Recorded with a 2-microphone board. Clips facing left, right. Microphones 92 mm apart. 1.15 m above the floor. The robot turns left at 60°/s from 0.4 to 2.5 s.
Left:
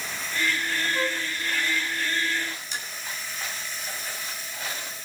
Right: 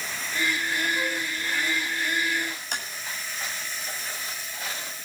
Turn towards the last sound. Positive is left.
turn(degrees=-65)  # may be behind; listen again after turning